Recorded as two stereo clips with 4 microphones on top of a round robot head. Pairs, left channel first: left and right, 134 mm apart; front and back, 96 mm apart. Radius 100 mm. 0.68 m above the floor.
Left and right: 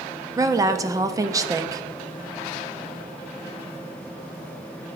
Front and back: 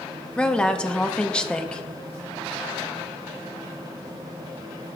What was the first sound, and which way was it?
A woman speaking, 70° right.